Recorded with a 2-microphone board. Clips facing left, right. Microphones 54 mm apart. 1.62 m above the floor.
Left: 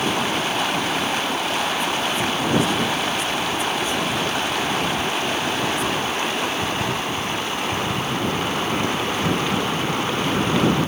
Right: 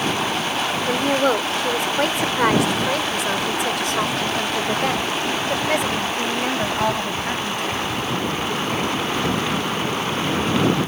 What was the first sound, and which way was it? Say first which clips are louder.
A woman speaking: right 4 dB; 75° right (ahead or behind).